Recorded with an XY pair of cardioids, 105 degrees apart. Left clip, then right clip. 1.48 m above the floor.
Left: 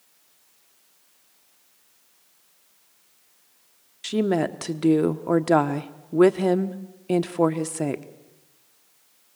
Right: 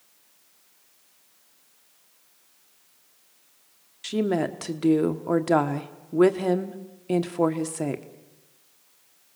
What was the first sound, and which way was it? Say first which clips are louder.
A woman speaking: left 2 dB; 15° left.